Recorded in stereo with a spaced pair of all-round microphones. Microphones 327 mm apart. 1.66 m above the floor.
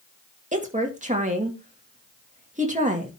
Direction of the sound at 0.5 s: 20° right (ahead or behind).